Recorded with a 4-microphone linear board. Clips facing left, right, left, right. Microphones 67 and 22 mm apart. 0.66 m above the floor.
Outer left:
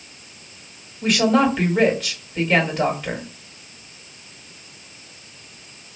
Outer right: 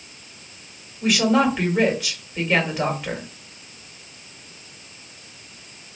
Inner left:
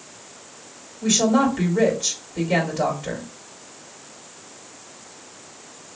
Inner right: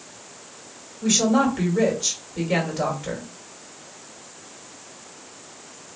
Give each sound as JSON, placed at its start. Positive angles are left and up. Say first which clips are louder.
{"t": 1.0, "sound": "a woman speaking", "louder": "outer left 1 dB, inner left 1 dB", "side_deg": -5, "distance_m": 1.9}